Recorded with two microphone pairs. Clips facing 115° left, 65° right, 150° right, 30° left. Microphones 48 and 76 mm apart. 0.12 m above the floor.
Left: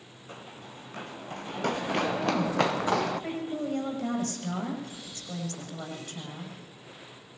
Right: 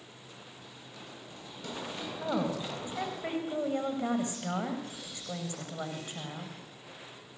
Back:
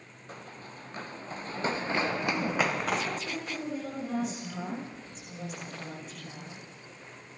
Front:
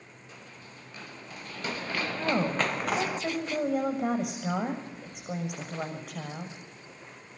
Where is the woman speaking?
5° left, 7 m.